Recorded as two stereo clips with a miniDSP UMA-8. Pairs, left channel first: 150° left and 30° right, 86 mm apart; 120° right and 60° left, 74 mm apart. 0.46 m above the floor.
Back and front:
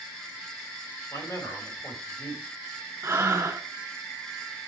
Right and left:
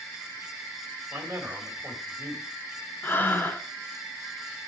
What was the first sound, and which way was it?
A man speaking, 110° left.